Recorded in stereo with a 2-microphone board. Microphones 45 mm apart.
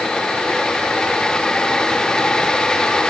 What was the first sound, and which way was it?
Only background noise.